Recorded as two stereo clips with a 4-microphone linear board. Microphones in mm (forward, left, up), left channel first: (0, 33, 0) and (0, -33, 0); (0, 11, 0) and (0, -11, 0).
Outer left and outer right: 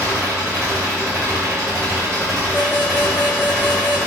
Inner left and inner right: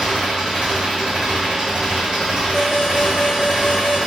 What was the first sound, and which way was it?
An engine running, 50° right (ahead or behind).